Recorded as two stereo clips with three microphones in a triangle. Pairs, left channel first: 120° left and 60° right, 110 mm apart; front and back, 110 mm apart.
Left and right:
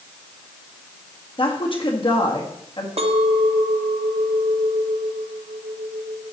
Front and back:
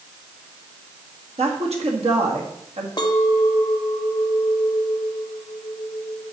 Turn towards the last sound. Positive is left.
turn(degrees=-45)